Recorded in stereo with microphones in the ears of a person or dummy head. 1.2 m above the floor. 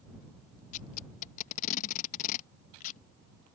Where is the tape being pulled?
50° left (ahead or behind).